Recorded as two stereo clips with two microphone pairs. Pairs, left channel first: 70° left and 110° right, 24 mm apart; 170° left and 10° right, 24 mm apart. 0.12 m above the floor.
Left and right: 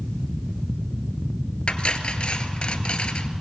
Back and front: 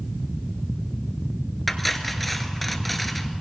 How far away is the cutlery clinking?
About 1.0 m.